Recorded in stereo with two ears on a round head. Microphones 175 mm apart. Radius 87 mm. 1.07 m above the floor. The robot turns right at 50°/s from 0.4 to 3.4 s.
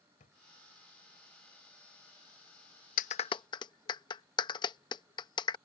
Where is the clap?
40° left (ahead or behind); by 5.6 s 20° left (ahead or behind).